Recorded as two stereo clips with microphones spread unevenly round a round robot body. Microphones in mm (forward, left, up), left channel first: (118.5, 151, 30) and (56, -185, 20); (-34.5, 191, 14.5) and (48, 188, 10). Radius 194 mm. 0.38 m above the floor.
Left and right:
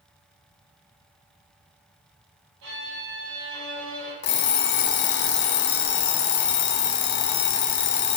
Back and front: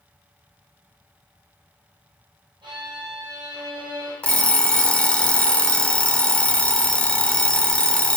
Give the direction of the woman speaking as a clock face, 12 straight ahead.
I don't hear a woman speaking.